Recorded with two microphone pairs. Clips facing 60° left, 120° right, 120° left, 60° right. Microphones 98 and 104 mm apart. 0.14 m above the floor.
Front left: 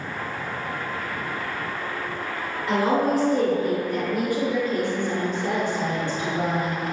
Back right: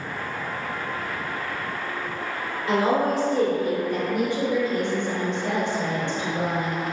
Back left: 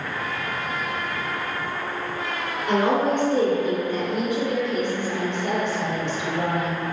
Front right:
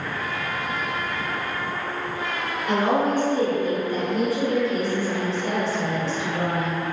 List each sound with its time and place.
2.7 s a woman speaking: 175° left, 1.8 m
4.1 s a woman speaking: 70° right, 1.6 m